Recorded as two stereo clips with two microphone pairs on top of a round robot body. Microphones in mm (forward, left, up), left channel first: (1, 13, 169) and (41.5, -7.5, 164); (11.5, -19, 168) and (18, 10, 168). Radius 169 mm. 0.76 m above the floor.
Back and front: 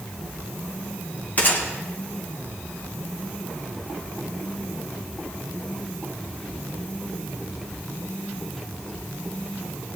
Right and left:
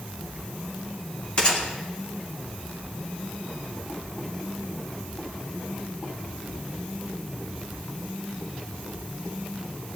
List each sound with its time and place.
1.4 s a gunshot: 155° right, 2.5 m